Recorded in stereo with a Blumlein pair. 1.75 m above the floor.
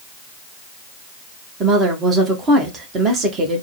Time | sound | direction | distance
1.6 | a woman speaking | 25° right | 1.4 m